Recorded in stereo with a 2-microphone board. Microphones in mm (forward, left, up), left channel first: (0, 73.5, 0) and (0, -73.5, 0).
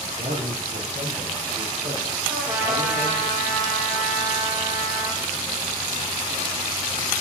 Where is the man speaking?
55° right (ahead or behind), 6 m; by 3.3 s 35° right (ahead or behind), 10 m.